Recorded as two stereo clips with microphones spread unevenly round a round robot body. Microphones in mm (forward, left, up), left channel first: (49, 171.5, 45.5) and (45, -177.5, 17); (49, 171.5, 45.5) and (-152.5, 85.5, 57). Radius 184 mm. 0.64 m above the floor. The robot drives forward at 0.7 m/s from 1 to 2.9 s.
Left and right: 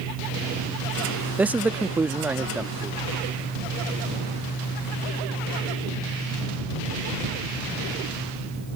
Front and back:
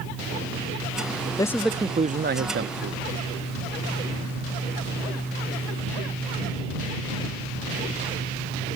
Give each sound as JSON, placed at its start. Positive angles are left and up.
{"t": 1.4, "sound": "a man speaking", "azimuth_deg": -20}